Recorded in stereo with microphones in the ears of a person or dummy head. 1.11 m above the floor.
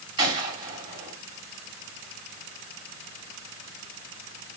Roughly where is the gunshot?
Right.